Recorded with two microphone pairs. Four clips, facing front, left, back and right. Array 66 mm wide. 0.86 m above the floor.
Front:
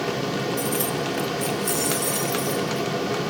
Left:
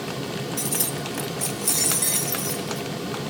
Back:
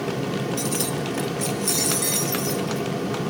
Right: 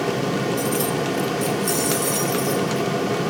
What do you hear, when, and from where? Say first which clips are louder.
0.6 s keys jangling: right 8 dB, front 1 dB; 125° left, 0.6 m; by 2.9 s 135° left, 2.5 m